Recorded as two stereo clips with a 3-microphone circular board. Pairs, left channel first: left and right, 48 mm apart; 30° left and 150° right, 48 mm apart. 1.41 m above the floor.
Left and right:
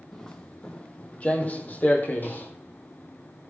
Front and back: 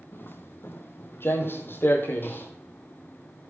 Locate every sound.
0.1 s footsteps: 10° left, 2.0 m; by 2.5 s 60° left, 2.5 m